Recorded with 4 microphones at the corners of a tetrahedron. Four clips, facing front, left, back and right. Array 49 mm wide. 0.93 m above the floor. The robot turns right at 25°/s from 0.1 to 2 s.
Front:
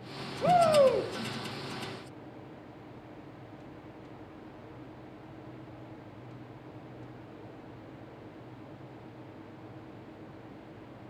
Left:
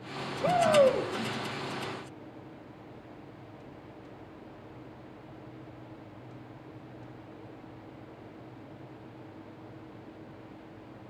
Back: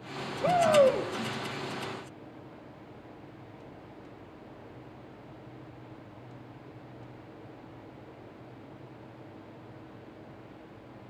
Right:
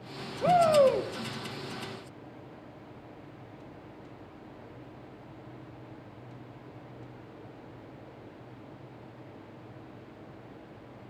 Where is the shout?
55° right, 0.7 m; by 1.1 s 40° right, 0.7 m.